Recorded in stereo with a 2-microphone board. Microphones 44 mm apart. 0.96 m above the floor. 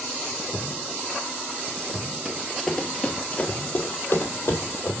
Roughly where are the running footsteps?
Centre.